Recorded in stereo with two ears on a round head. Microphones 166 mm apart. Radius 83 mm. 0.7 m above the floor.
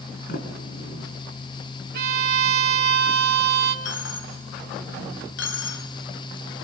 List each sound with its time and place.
0.3 s a sliding door: 50° left (ahead or behind), 3.5 m
1.9 s a violin: 55° right (ahead or behind), 2 m
3.9 s a dropped coin: 70° left (ahead or behind), 2 m